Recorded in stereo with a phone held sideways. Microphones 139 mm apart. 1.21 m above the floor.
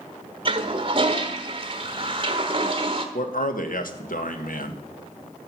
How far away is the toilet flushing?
About 1.3 m.